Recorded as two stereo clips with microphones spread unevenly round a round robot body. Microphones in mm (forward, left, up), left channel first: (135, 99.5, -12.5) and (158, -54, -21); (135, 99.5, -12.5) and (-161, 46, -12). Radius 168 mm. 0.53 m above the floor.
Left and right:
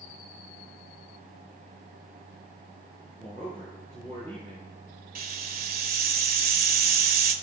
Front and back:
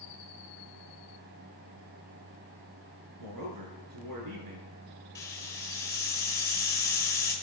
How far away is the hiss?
About 1.5 m.